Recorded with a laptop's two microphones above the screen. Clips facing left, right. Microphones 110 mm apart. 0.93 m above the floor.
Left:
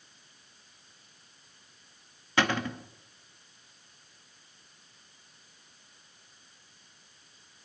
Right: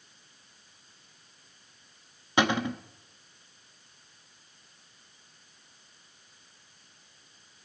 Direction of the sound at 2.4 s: 20° right (ahead or behind).